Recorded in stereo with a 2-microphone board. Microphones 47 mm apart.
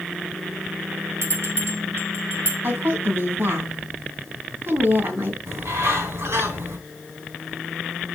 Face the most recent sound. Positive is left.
turn(degrees=-70)  # may be behind; listen again after turning